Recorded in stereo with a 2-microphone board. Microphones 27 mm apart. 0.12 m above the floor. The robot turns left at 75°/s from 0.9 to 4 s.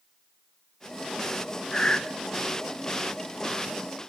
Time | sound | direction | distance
1.7 | breathing | 30° left (ahead or behind) | 0.9 m